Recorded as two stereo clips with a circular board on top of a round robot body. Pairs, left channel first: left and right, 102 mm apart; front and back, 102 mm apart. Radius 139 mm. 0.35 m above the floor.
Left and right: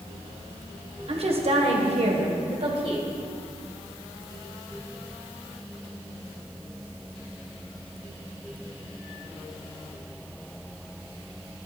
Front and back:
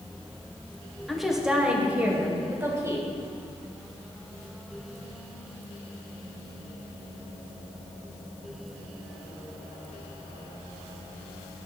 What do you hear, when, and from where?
1.1 s a woman speaking: 90° right, 1.6 m; by 3.1 s 120° right, 2.5 m